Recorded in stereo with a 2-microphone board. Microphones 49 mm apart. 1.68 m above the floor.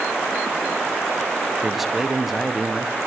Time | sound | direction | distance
1.6 | a man speaking | 5° right (ahead or behind) | 0.6 m